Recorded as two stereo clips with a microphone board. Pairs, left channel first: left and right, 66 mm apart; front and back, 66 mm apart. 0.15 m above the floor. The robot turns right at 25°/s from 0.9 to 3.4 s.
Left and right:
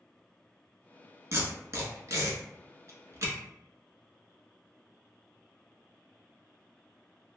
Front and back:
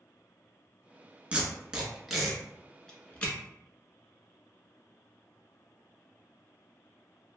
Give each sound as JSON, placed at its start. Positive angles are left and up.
{"t": 1.3, "sound": "tape being pulled", "azimuth_deg": -115, "distance_m": 0.9}